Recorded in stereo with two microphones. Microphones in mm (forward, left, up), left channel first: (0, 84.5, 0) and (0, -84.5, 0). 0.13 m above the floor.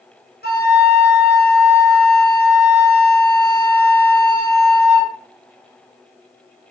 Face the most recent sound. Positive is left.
turn(degrees=70)  # may be behind; listen again after turning